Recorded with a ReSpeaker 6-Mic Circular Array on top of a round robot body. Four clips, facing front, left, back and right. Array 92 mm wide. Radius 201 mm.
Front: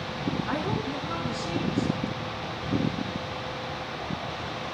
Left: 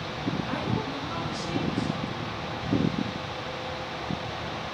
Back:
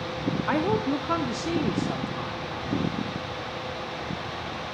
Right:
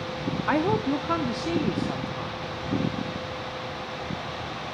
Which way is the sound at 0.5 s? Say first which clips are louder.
Right 7 dB, back 5 dB; 120° right.